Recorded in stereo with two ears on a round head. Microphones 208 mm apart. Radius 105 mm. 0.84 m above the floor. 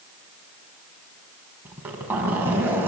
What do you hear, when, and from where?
1.6 s a zipper: 10° right (ahead or behind), 4.5 m